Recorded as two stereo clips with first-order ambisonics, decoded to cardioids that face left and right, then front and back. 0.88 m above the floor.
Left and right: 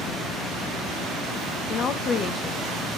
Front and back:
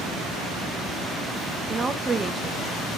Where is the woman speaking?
115° left, 0.9 m.